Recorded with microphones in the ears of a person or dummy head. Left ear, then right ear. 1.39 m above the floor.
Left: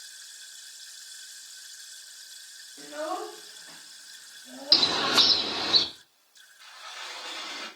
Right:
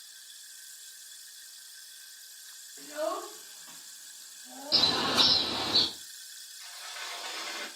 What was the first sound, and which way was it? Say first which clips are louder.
A child speaking: even; 15° right (ahead or behind).